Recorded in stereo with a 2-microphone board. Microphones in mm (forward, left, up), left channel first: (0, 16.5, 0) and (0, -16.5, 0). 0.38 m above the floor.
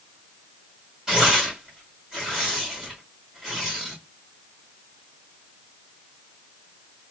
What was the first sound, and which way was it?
Tearing paper, 20° right (ahead or behind).